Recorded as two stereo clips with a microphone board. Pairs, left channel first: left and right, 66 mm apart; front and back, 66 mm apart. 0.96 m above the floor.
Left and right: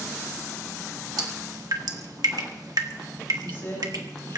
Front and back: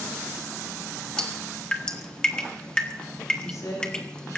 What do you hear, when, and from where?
1.2 s dripping: 75° right, 1.6 m
3.4 s a woman speaking: 35° left, 10 m